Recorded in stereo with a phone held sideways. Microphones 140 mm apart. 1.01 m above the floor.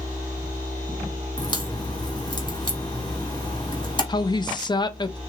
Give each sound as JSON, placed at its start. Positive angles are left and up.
{"t": 1.4, "sound": "a crack", "side_deg": 30, "distance_m": 1.8}
{"t": 4.1, "sound": "a woman speaking", "side_deg": 30, "distance_m": 0.5}